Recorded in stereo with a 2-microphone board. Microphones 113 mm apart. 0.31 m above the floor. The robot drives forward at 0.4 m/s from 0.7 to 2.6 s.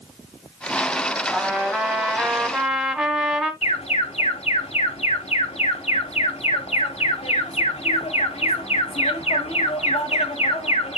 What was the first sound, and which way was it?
A trumpet, centre (ahead or behind).